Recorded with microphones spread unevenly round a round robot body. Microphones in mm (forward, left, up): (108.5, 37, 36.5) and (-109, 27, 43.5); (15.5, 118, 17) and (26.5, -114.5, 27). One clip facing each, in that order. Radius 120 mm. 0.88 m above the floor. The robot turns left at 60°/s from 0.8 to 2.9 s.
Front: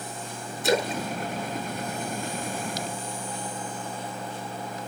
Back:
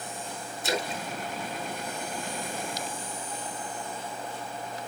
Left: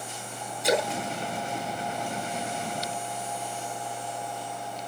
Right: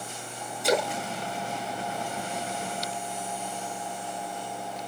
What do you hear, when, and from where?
0.6 s a splash: straight ahead, 0.7 m; by 2.8 s 120° right, 0.7 m